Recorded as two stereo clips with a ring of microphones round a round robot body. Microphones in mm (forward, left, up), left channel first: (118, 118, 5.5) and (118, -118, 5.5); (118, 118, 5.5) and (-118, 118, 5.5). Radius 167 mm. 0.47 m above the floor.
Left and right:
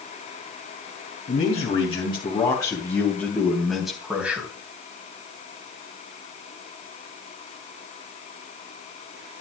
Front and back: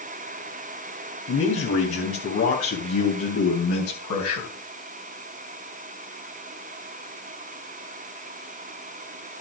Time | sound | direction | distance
1.3 | a man speaking | 30° left | 3.5 m